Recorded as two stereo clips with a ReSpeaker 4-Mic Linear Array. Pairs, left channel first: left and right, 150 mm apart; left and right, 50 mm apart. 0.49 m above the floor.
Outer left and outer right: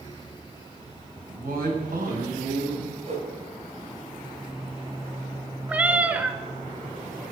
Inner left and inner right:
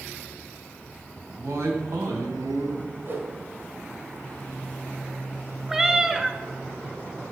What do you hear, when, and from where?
1.3 s a woman speaking: 70° right (ahead or behind), 3.5 m; by 3.0 s 75° right (ahead or behind), 4.5 m
3.0 s a whoosh: 45° right (ahead or behind), 2.5 m
5.7 s a cat meowing: 10° right (ahead or behind), 0.8 m